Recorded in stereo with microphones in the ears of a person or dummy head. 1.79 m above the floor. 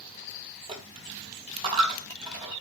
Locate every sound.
0.7 s a dropped coin: 30° right (ahead or behind), 3.5 m